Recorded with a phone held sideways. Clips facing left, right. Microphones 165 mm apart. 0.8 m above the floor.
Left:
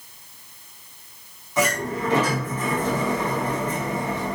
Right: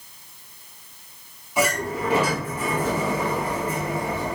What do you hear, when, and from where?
1.6 s a sliding door: 10° right (ahead or behind), 6.5 m